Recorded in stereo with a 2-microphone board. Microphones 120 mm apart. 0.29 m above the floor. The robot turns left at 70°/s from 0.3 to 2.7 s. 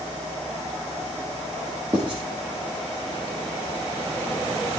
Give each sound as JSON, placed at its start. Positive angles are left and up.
{"t": 1.9, "sound": "writing", "side_deg": -35, "distance_m": 3.0}